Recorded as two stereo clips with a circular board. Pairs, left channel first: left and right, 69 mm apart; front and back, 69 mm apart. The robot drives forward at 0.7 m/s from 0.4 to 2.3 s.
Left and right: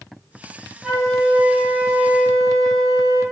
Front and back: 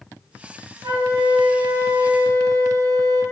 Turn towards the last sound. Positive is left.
turn(degrees=180)